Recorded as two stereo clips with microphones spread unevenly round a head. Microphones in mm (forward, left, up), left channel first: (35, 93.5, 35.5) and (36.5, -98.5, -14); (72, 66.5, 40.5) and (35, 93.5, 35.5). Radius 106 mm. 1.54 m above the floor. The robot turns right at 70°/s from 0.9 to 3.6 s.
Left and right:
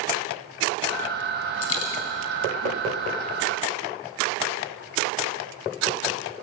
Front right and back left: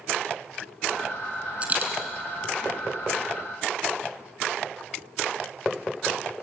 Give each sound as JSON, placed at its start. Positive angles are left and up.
{"t": 1.6, "sound": "a dropped coin", "azimuth_deg": 80, "distance_m": 6.5}